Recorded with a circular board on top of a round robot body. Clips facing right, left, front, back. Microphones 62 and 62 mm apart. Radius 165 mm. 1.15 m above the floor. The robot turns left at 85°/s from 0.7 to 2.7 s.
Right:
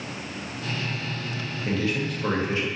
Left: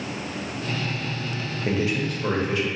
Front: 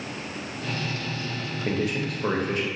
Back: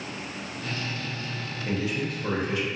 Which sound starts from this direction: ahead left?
A man speaking, at 1.6 s.